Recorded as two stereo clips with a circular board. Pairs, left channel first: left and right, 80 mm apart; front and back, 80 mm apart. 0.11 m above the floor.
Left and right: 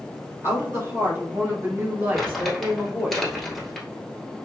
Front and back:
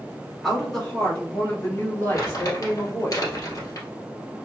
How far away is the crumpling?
About 1.7 m.